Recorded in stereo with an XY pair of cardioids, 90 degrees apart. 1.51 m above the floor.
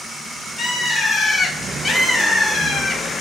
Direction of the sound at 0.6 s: 45° left.